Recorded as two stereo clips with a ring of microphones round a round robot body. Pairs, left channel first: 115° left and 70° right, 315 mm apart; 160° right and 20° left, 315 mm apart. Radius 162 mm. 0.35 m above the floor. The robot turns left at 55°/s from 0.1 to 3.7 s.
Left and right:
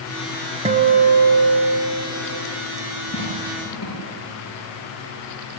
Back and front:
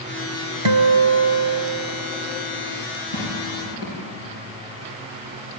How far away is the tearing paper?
About 9.5 m.